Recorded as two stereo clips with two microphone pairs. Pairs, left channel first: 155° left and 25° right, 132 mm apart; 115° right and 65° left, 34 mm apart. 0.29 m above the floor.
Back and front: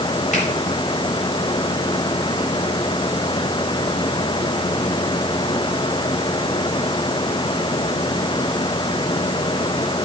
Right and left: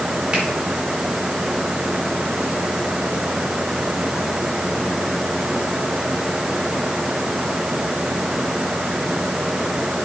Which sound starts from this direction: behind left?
A finger snap, at 0.3 s.